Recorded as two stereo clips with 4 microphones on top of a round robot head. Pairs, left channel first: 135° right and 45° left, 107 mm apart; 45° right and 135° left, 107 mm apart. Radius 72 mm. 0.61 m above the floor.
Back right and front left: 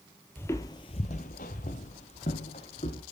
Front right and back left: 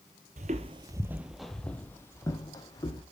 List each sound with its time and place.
0.4 s footsteps: 150° left, 0.9 m; by 3.0 s 100° right, 2.0 m